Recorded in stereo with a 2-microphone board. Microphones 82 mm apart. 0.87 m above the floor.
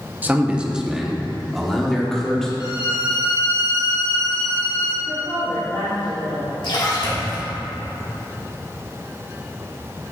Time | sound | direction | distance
0.2 | a man speaking | 20° right (ahead or behind) | 0.8 m
2.6 | a violin | 60° left (ahead or behind) | 2.5 m
5.1 | a woman speaking | 45° left (ahead or behind) | 2 m
6.6 | a splash | 70° left (ahead or behind) | 2.5 m